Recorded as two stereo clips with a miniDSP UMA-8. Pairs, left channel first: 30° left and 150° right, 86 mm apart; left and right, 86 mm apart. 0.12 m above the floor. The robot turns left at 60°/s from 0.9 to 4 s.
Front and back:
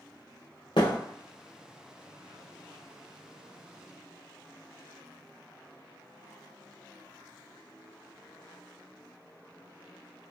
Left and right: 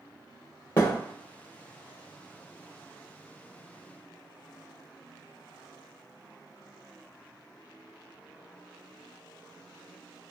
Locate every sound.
0.8 s a thud: 35° left, 1.1 m; by 1.0 s 30° left, 1.1 m